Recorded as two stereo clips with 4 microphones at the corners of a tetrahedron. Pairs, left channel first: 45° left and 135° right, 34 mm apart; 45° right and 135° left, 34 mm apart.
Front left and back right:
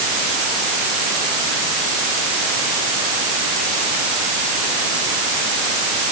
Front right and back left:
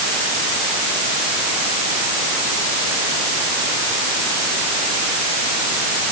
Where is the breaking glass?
No breaking glass in this recording.